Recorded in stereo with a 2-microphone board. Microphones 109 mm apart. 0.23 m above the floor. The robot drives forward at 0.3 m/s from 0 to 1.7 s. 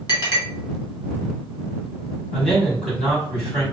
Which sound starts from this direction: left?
A clink, at 0.1 s.